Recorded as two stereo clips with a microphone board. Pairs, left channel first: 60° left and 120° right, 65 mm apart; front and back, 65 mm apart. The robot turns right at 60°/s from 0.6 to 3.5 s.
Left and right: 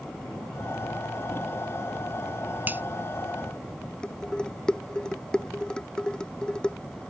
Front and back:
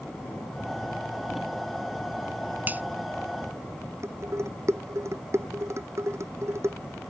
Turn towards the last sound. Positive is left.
turn(degrees=140)